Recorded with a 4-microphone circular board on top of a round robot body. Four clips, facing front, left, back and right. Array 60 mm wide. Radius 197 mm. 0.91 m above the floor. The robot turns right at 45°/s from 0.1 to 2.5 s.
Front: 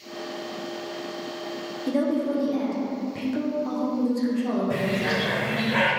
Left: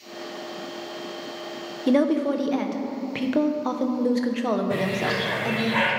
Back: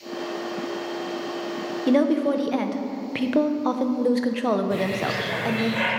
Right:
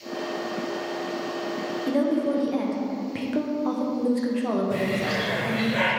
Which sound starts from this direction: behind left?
A woman speaking, at 1.9 s.